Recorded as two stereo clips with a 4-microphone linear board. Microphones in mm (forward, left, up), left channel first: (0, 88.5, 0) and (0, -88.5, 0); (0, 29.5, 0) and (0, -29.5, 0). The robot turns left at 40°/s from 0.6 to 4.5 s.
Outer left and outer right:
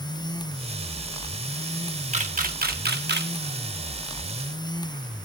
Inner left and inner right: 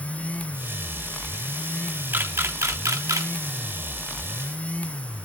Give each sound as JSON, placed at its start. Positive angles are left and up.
{"t": 2.1, "sound": "a camera shutter", "side_deg": -40, "distance_m": 1.1}